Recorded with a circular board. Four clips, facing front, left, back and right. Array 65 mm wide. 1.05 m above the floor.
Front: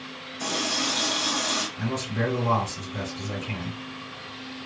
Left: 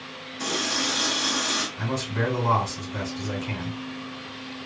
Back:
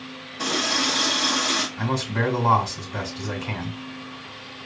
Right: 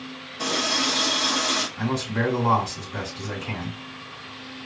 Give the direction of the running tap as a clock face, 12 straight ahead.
5 o'clock.